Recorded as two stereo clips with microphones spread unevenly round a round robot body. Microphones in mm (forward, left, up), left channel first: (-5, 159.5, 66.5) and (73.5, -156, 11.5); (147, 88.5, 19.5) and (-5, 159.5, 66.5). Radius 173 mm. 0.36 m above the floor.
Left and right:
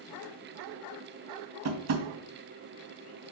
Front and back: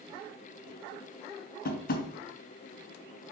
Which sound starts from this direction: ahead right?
Tapping, at 1.6 s.